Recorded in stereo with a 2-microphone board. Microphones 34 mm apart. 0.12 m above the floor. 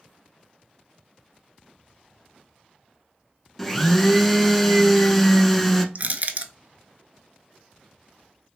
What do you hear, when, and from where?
3.6 s a blender: 5° left (ahead or behind), 0.6 m
6.0 s crushing: 50° right (ahead or behind), 0.5 m